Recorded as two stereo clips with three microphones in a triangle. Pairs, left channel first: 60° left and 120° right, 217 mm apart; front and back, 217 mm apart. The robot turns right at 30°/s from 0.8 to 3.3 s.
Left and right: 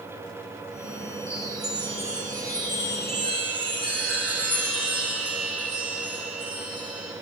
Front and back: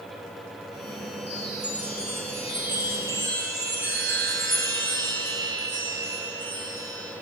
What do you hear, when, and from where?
1.3 s a chime: 95° left, 6 m; by 7.1 s 160° left, 6 m